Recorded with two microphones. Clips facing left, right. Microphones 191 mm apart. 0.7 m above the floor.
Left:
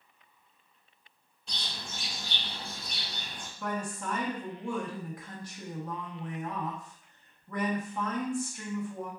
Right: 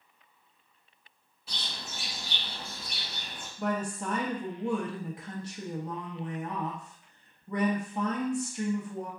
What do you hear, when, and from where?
1.5 s a bird: 5° right (ahead or behind), 1.7 m
3.6 s a woman speaking: 25° right (ahead or behind), 0.7 m